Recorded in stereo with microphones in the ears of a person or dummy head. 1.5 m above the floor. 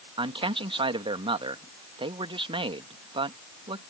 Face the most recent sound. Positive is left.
turn(degrees=-25)  # may be behind; listen again after turning